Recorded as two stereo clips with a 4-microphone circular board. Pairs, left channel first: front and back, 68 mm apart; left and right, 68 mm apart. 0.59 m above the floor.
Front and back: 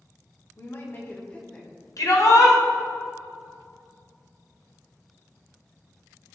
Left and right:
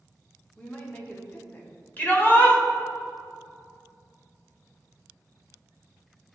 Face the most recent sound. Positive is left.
turn(degrees=25)